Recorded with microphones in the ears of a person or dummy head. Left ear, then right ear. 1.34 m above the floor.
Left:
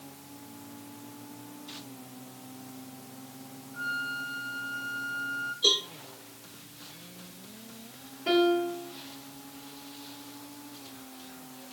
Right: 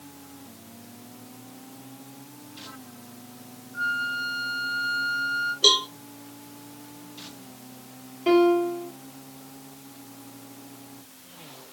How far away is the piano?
About 1.4 m.